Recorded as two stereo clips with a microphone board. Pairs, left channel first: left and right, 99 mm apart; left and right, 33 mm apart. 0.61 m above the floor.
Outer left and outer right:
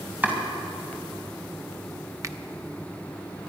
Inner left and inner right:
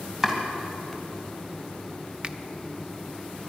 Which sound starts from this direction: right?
A finger snap, at 2.2 s.